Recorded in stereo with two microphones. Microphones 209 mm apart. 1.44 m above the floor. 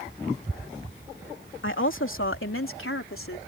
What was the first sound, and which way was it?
A woman speaking, 70° left (ahead or behind).